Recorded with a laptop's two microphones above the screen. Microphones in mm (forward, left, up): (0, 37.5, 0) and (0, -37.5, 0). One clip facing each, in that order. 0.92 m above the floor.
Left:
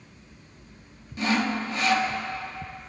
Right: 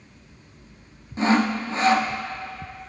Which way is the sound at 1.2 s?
30° right (ahead or behind).